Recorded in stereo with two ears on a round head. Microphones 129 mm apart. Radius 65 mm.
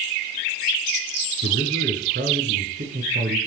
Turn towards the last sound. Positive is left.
turn(degrees=-65)  # may be behind; listen again after turning